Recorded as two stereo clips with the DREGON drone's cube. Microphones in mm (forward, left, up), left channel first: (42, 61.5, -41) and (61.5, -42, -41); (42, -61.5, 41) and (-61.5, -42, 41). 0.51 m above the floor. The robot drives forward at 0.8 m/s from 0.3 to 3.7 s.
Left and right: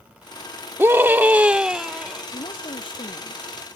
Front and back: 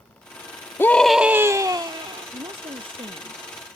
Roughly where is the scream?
Ahead right.